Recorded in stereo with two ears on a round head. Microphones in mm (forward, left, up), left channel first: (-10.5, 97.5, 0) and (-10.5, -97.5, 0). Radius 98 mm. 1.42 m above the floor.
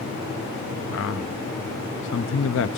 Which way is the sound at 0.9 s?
65° left (ahead or behind).